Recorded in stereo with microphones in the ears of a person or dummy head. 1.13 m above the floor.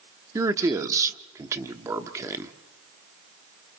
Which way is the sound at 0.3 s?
15° right (ahead or behind).